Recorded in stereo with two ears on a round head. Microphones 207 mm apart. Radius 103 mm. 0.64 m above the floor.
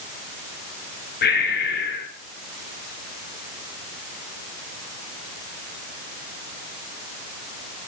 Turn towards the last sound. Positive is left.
turn(degrees=45)  # may be behind; listen again after turning